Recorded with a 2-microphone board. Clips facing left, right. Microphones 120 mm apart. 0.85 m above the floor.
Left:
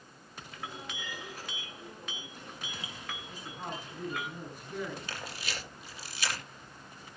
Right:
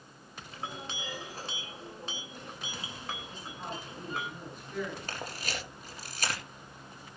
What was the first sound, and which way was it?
A clink, 30° right (ahead or behind).